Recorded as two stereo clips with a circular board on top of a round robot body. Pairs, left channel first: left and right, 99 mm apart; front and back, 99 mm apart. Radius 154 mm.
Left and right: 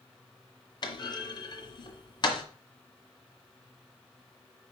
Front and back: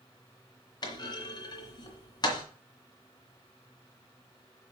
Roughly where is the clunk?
Ahead left.